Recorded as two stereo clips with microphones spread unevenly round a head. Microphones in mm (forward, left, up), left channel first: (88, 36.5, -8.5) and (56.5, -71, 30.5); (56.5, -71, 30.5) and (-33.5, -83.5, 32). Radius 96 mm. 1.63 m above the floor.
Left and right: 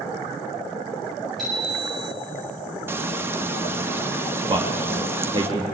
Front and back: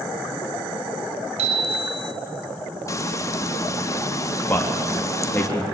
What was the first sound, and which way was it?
A bicycle bell, 165° left.